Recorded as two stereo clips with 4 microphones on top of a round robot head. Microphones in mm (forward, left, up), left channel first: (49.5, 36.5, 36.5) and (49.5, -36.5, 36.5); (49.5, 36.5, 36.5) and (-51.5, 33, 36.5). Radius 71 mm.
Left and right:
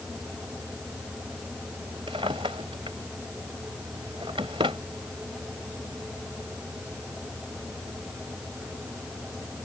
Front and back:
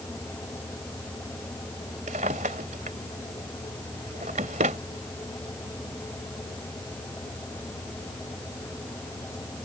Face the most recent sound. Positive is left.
turn(degrees=-140)